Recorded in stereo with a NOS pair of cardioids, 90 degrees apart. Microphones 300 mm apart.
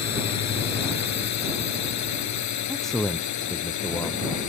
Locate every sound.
0.0 s a drone: 60° left; by 4.5 s 70° left
2.7 s a man speaking: straight ahead